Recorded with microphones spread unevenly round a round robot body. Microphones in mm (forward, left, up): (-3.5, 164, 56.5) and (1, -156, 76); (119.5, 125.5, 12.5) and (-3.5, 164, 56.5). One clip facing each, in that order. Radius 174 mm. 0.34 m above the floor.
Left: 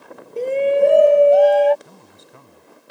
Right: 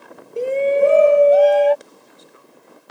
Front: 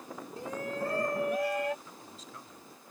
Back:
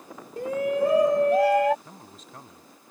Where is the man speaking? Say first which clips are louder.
Left 1 dB, back 2 dB; 120° left.